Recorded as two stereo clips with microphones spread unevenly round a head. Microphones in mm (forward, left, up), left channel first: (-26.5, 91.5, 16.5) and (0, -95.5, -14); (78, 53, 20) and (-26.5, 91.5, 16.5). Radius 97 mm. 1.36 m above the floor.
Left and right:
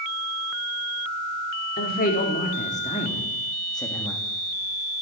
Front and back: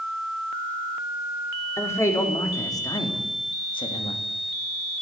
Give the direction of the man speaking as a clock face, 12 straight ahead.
10 o'clock.